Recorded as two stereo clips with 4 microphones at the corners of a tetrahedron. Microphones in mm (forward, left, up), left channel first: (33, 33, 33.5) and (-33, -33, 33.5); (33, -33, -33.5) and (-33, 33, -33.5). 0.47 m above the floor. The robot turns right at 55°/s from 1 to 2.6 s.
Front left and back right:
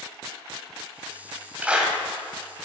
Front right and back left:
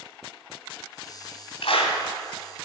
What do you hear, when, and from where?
1.6 s a clap: 60° right, 2 m; by 2.0 s 40° right, 2 m